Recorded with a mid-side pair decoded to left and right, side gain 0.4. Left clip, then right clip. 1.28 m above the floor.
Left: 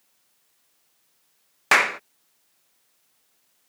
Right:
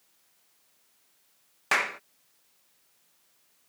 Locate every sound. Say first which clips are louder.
1.7 s a clap: left 8 dB; 60° left